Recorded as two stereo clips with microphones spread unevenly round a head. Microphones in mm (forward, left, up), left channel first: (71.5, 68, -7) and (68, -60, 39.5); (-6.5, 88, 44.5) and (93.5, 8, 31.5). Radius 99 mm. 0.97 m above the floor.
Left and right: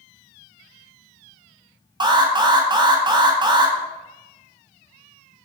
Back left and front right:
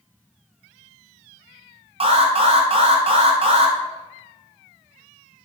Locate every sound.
2.0 s an alarm: 30° right, 2 m